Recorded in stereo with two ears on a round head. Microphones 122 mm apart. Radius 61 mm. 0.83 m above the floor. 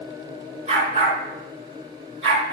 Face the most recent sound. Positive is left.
turn(degrees=-35)  # may be behind; listen again after turning